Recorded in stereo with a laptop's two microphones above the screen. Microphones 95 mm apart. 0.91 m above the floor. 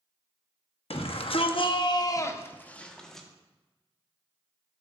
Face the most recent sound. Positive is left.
turn(degrees=0)  # may be behind; listen again after turning